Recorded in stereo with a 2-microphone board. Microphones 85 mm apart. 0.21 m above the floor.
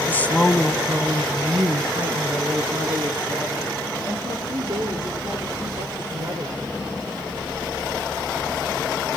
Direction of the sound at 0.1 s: 25° left (ahead or behind).